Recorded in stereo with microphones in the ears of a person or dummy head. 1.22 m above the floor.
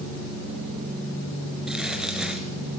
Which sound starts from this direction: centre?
Crumpling, at 1.7 s.